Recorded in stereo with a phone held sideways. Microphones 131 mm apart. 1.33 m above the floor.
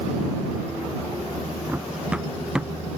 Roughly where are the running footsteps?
Centre.